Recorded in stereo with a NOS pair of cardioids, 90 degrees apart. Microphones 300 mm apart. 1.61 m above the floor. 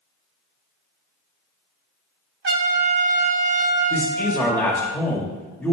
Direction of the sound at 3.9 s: 10° left.